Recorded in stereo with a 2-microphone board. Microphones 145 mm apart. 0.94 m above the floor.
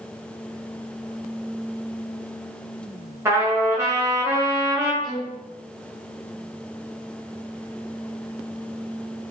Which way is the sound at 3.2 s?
15° right (ahead or behind).